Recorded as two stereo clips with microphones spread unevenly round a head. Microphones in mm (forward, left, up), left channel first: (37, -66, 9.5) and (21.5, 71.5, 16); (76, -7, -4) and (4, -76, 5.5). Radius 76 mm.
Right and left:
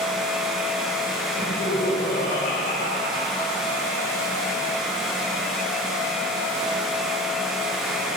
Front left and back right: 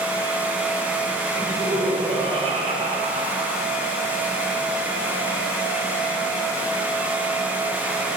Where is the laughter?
105° right, 3.5 m; by 3.7 s 150° right, 3 m.